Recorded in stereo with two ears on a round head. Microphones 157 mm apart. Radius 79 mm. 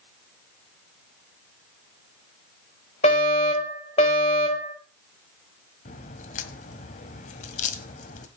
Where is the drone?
I don't hear a drone.